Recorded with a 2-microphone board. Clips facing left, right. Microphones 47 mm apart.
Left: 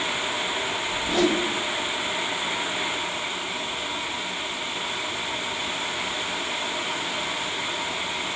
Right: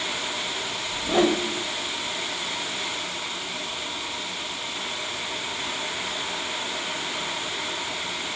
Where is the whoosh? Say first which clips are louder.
Right 2 dB; 30° right (ahead or behind), 2.5 m.